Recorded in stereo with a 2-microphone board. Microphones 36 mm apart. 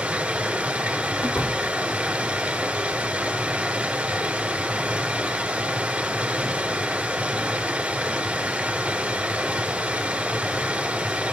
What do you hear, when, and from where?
0.0 s running water: 30° right (ahead or behind), 3.5 m
1.2 s a door slam: 60° left (ahead or behind), 2.5 m